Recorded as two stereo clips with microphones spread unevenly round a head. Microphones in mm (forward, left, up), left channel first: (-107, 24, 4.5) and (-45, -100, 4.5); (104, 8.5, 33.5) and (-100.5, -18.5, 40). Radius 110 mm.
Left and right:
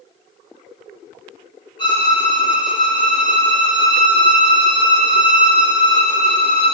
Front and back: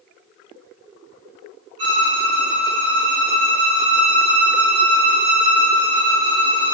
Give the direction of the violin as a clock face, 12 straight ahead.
6 o'clock.